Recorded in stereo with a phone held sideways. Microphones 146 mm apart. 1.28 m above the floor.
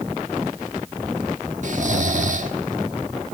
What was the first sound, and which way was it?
Snoring, 55° right (ahead or behind).